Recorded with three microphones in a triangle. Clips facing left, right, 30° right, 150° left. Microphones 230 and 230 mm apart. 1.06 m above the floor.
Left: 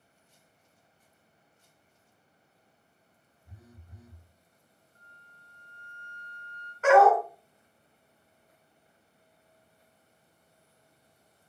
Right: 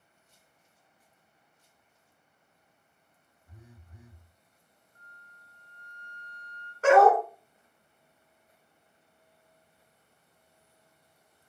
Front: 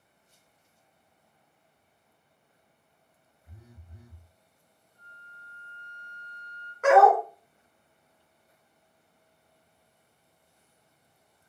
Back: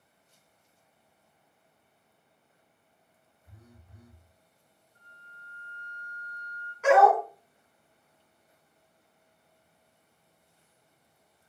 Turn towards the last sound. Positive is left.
turn(degrees=-40)